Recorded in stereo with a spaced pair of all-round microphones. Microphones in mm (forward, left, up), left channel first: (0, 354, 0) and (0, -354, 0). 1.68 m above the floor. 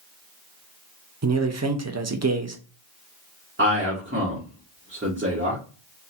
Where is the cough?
I don't hear a cough.